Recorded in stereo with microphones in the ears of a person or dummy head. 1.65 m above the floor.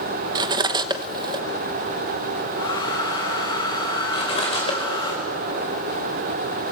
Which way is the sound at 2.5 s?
30° left (ahead or behind).